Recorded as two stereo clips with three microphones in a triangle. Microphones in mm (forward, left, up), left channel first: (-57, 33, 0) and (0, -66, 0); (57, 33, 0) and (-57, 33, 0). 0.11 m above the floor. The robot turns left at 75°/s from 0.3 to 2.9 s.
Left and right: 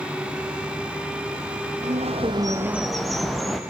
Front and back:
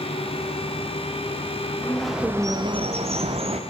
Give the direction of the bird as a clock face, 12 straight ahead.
2 o'clock.